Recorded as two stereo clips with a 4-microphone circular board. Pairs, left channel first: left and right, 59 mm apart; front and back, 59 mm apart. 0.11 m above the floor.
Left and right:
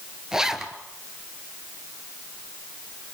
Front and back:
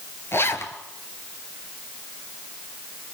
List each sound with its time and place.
0.3 s a zipper: 10° right, 1.4 m